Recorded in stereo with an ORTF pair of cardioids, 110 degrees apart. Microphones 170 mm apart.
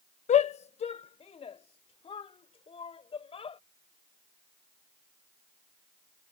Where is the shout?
40° left; by 3.6 s 35° left.